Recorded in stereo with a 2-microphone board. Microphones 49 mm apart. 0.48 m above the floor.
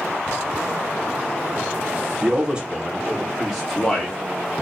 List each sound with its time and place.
2.2 s a man speaking: 25° right (ahead or behind), 1.5 m; by 4.6 s 20° left (ahead or behind), 1.4 m